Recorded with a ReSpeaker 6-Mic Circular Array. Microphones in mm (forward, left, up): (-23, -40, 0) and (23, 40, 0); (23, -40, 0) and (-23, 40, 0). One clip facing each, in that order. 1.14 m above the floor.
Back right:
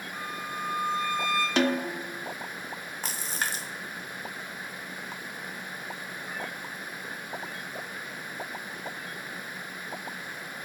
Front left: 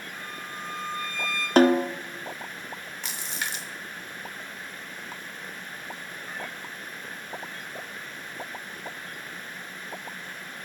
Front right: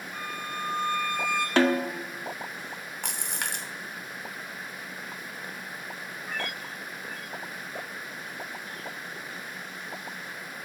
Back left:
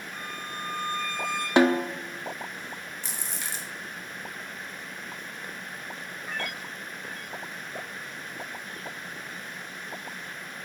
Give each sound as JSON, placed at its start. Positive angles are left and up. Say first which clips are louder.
{"t": 0.1, "sound": "a violin", "louder": "back right 5 dB, front right 3 dB", "azimuth_deg": -145, "distance_m": 3.0}
{"t": 1.6, "sound": "a snare drum", "louder": "front left 10 dB, back left 3 dB", "azimuth_deg": 55, "distance_m": 0.5}
{"t": 3.0, "sound": "a splash", "louder": "back right 3 dB, front right 6 dB", "azimuth_deg": -75, "distance_m": 0.8}